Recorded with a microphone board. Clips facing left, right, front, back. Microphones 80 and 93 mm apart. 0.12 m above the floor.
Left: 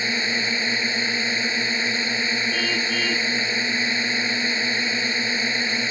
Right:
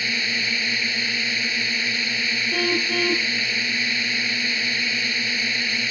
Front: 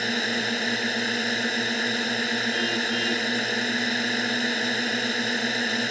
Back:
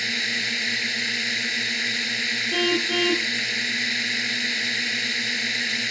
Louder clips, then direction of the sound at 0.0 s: Left 2 dB, front 4 dB; 35° left.